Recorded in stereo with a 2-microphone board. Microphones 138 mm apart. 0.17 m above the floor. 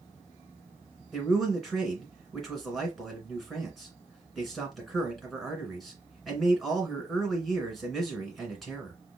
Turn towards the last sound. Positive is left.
turn(degrees=0)  # may be behind; listen again after turning